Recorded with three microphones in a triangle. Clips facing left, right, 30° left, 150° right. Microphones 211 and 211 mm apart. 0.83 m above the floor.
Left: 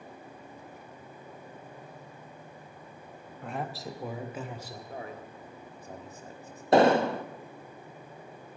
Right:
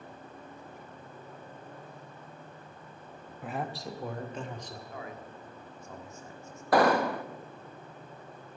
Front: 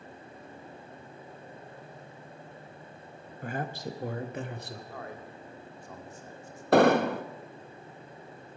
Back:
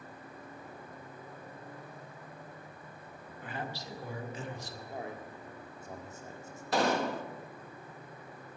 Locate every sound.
3.4 s a man speaking: 5° right, 0.7 m; by 4.8 s 10° left, 1.4 m
4.9 s a man speaking: 145° left, 1.6 m
6.7 s an explosion: 30° left, 0.5 m